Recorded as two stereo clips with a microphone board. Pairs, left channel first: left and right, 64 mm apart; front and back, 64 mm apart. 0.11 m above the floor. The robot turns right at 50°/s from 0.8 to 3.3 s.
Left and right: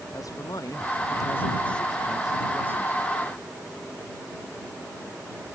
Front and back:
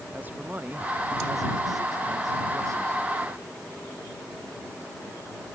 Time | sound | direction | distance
0.1 | a man speaking | 115° left | ?